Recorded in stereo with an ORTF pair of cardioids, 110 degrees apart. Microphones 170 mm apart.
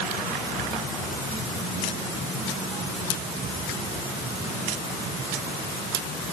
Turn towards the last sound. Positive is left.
No sound to turn to.